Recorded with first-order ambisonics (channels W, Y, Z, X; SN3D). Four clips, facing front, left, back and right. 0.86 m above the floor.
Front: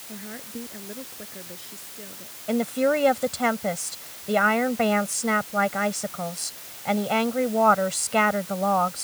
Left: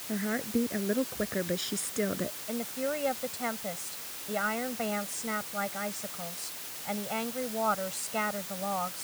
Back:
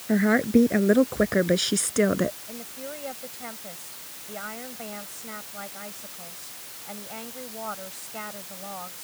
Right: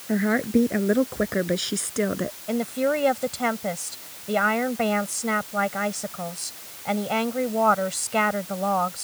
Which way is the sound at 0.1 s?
145° right.